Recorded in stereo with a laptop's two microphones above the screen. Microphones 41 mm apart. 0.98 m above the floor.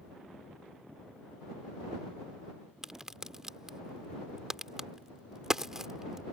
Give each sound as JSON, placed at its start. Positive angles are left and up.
{"t": 2.8, "sound": "a crack", "side_deg": -15}